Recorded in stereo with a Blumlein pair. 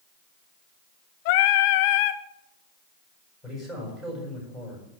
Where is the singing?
50° left, 0.7 m.